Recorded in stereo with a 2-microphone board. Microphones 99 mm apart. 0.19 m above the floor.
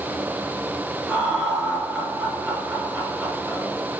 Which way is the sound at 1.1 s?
10° right (ahead or behind).